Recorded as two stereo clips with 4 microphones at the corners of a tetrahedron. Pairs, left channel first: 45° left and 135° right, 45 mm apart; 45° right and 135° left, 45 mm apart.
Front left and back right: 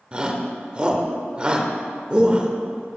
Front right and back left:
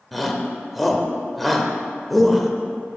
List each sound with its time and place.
0.1 s a shout: 135° right, 0.9 m